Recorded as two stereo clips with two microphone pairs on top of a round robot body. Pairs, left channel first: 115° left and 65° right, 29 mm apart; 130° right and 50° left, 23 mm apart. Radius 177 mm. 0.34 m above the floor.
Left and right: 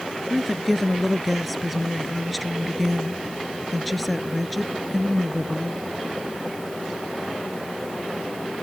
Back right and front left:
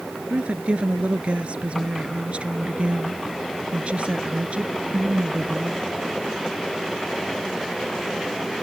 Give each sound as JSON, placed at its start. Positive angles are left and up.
{"t": 0.3, "sound": "a woman speaking", "azimuth_deg": 20}